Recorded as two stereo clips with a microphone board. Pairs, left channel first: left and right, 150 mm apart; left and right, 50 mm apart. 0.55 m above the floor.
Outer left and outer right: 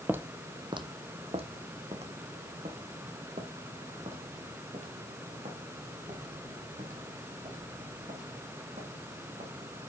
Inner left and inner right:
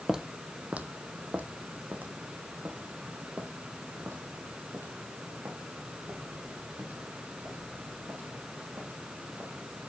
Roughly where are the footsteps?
Centre.